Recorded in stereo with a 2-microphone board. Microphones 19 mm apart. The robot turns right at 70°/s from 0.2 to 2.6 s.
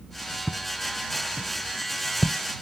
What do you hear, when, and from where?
0.5 s footsteps: 75° right (ahead or behind); by 2.4 s 35° left (ahead or behind)